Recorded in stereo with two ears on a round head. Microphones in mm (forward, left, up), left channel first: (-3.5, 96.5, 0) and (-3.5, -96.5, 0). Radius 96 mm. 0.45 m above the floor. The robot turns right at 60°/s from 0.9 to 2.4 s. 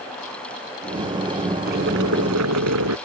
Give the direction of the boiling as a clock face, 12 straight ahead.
4 o'clock.